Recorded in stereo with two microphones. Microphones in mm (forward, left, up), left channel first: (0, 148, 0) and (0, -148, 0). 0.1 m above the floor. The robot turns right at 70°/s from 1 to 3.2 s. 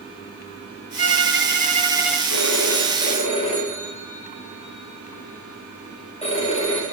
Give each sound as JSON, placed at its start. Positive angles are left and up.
{"t": 1.0, "sound": "a violin", "azimuth_deg": -80, "distance_m": 1.1}
{"t": 2.3, "sound": "a phone ringing", "azimuth_deg": 95, "distance_m": 8.5}